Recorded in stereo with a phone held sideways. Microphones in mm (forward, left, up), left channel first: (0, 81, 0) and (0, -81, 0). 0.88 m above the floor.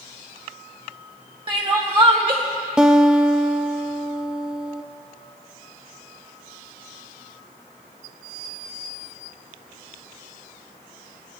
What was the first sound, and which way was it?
Crying, 35° right (ahead or behind).